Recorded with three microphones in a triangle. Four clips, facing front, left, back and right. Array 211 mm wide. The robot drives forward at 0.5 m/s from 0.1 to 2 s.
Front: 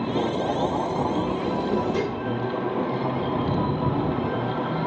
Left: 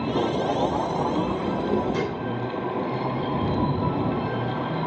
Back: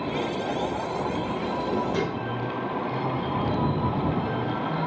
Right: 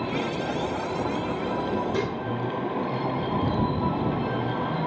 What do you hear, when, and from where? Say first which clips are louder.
1.9 s dishes clattering: left 1 dB, front 1 dB; 150° right, 3 m